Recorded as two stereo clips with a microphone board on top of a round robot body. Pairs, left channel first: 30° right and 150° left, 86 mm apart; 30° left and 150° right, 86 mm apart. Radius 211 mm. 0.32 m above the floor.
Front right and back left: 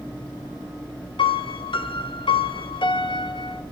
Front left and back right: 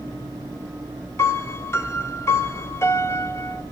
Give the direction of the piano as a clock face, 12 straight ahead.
1 o'clock.